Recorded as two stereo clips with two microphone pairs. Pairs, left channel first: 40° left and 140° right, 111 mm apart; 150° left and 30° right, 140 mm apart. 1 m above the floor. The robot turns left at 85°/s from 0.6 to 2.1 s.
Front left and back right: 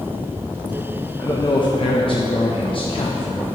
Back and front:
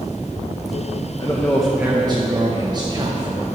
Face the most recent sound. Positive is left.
turn(degrees=25)